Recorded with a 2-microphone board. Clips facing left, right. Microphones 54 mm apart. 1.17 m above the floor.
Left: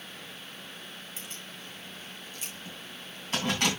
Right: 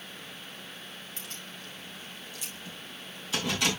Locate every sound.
1.2 s keys jangling: 25° left (ahead or behind), 5.5 m; by 3.7 s 50° left (ahead or behind), 6 m